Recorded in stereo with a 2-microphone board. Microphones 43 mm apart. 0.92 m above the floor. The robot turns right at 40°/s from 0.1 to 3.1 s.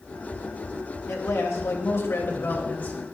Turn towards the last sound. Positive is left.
turn(degrees=155)